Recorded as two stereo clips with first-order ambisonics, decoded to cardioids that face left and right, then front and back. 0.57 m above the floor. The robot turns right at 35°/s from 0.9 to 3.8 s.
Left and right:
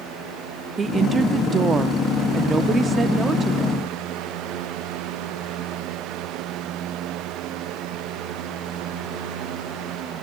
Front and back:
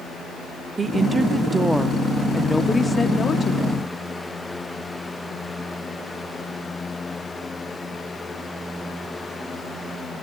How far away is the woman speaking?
About 0.6 m.